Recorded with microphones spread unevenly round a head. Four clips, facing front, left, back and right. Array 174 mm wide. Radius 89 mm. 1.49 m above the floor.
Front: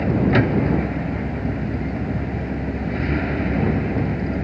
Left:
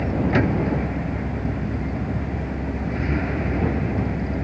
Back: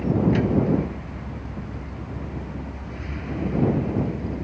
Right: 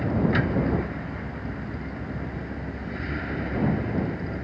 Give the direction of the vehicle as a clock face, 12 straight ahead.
11 o'clock.